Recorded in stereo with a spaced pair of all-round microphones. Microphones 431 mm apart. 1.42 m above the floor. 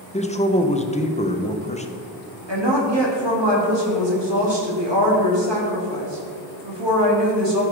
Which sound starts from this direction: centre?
A man speaking, at 0.1 s.